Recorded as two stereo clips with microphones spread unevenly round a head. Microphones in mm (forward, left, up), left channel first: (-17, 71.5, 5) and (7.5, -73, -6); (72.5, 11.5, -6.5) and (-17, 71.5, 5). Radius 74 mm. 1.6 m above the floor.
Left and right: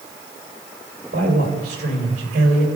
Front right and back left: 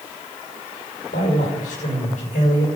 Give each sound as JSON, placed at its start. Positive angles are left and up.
{"t": 1.1, "sound": "a man speaking", "azimuth_deg": -40, "distance_m": 6.5}